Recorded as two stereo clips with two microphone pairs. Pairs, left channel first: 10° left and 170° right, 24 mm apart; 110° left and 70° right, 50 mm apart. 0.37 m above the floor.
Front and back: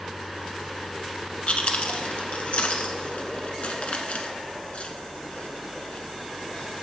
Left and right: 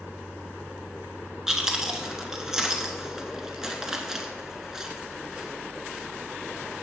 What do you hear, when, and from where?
1.5 s chewing: 5° left, 0.9 m